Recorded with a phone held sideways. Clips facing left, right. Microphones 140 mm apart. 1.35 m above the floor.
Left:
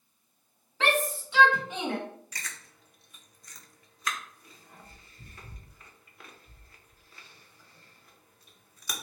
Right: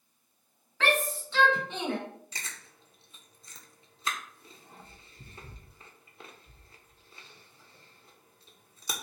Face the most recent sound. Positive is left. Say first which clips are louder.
# left 1 dB
turn(degrees=-25)  # may be behind; listen again after turning